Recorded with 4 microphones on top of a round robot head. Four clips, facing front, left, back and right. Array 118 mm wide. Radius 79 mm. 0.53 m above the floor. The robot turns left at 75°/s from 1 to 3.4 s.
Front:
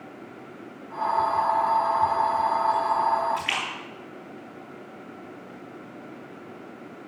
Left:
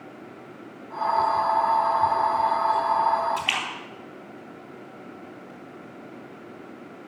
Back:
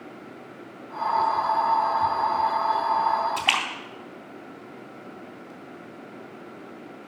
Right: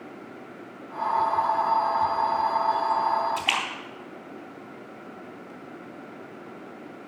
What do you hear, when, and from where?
3.4 s a splash: 165° right, 4 m; by 5.5 s 170° right, 4 m